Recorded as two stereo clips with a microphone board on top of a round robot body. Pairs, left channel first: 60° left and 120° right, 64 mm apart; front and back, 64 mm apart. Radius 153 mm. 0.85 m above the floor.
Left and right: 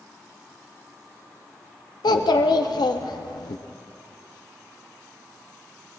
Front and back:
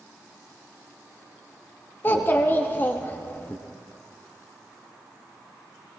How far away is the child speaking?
About 0.7 m.